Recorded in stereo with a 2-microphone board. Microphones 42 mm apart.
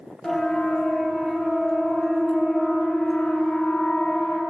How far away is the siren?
About 7 m.